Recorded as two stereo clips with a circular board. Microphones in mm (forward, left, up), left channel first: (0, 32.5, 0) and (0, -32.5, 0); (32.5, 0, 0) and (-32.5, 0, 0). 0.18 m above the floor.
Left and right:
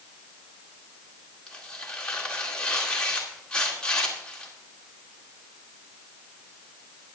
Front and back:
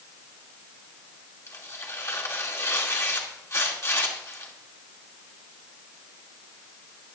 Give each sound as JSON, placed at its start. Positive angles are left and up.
{"t": 1.5, "sound": "tearing paper", "azimuth_deg": 20, "distance_m": 2.5}